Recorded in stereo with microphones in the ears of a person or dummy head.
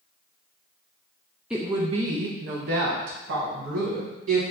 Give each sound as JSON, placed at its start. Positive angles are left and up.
{"t": 1.5, "sound": "a woman speaking", "side_deg": 0, "distance_m": 0.5}